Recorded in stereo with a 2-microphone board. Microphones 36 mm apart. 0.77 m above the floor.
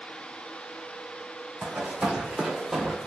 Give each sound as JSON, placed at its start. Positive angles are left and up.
{"t": 1.6, "sound": "running footsteps", "side_deg": -40, "distance_m": 1.4}